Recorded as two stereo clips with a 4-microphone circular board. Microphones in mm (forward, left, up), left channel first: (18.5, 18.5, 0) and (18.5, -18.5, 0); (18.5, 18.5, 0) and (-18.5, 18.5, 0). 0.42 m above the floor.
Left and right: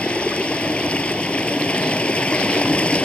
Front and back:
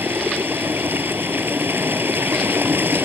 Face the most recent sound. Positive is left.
turn(degrees=150)